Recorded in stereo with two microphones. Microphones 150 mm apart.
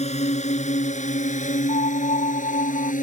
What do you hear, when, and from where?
0.0 s a drone: 50° left (ahead or behind); by 3.0 s 60° left (ahead or behind)
1.7 s a piano: 60° left (ahead or behind)